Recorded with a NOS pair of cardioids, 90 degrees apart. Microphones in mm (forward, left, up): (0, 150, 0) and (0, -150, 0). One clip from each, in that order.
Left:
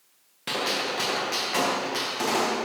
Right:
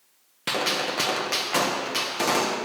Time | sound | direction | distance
0.5 | a gunshot | 30° right | 1.7 m